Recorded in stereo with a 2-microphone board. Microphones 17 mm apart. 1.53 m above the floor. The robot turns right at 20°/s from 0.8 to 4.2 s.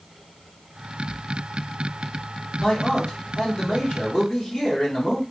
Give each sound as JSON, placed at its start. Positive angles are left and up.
{"t": 2.6, "sound": "a man speaking", "azimuth_deg": 105, "distance_m": 1.3}